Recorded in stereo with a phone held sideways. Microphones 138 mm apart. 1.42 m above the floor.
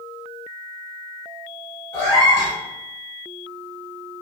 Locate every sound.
1.9 s a cat meowing: 30° left (ahead or behind), 1.8 m